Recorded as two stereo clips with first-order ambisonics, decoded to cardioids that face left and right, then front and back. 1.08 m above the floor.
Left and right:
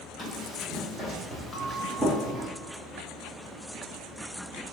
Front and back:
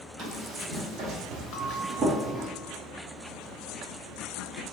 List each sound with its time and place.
0.2 s running footsteps: 145° right, 1.9 m; by 2.5 s 120° right, 1.1 m
1.5 s a bell: 5° left, 0.7 m